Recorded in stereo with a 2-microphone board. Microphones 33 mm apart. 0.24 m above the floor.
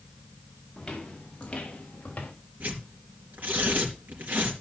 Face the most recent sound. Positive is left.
turn(degrees=-60)  # may be behind; listen again after turning